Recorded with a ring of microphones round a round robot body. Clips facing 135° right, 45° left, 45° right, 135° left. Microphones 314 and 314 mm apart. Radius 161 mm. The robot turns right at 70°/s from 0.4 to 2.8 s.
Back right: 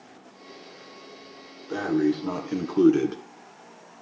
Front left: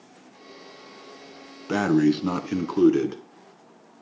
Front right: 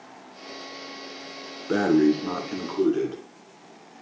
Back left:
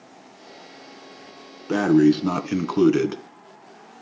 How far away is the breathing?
About 1.5 m.